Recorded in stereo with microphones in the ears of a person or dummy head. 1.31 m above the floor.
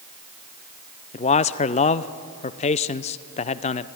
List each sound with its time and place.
1.1 s a man speaking: 25° left (ahead or behind), 0.6 m